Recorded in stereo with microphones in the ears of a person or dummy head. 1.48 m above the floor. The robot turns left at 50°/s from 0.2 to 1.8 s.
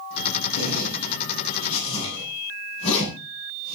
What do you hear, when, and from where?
0.6 s a zipper: 75° left (ahead or behind), 7.5 m; by 3.8 s 40° left (ahead or behind), 7.5 m